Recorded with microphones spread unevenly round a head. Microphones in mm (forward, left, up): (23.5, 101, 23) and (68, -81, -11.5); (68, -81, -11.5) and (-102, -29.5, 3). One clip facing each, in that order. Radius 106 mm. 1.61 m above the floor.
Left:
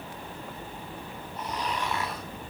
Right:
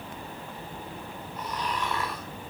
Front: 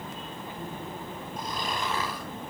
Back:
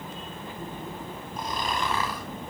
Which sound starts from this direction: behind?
Snoring, at 1.4 s.